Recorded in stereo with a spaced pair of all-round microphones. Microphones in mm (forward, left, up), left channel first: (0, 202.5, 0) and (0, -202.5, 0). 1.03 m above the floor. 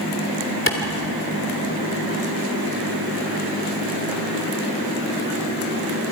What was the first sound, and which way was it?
A clap, 30° left (ahead or behind).